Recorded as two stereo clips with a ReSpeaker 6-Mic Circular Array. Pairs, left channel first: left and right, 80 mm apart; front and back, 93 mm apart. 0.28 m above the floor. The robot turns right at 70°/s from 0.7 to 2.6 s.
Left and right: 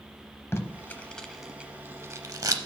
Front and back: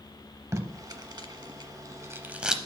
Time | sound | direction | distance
0.5 | tape being pulled | 135° left | 0.7 m